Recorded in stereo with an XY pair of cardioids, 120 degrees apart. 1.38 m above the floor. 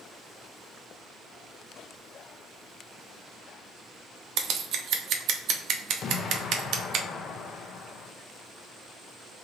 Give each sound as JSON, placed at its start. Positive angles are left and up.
{"t": 4.4, "sound": "scissors", "azimuth_deg": -70, "distance_m": 0.7}
{"t": 6.0, "sound": "an explosion", "azimuth_deg": 50, "distance_m": 0.6}